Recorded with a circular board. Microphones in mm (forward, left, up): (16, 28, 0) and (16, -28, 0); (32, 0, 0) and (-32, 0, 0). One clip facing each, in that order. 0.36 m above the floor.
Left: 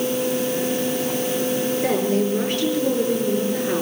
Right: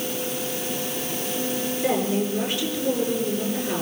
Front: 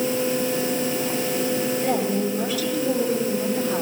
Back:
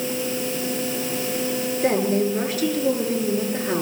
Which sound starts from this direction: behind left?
A woman speaking, at 1.8 s.